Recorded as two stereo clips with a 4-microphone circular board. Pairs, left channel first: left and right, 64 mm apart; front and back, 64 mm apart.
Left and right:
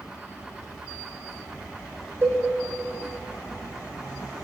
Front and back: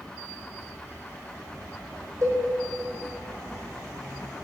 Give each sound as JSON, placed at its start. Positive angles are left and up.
{"t": 2.2, "sound": "a cowbell", "azimuth_deg": -140, "distance_m": 1.2}